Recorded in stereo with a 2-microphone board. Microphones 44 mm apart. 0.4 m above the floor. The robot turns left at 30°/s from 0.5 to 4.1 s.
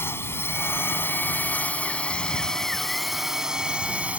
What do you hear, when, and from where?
0.0 s a drone: 75° left; by 4.2 s 30° right